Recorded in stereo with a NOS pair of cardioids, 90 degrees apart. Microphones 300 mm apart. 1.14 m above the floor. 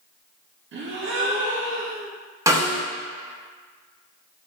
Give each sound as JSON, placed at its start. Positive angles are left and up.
{"t": 0.7, "sound": "a gasp", "azimuth_deg": -40, "distance_m": 0.7}
{"t": 2.5, "sound": "a snare drum", "azimuth_deg": -10, "distance_m": 0.8}